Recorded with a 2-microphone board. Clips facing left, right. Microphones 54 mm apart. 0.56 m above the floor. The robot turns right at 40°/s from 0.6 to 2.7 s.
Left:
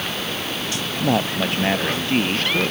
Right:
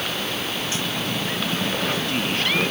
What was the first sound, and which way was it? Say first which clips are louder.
A man speaking: left 5 dB; 100° left.